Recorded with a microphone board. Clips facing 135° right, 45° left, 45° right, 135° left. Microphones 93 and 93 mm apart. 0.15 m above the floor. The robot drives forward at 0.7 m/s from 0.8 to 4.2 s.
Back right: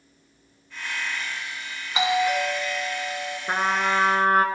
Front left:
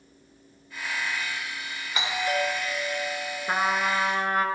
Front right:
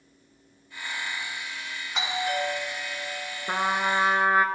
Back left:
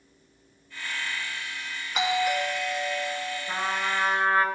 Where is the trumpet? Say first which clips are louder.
Back right 2 dB, front right 5 dB; 60° right, 0.6 m; by 4.5 s 115° right, 0.6 m.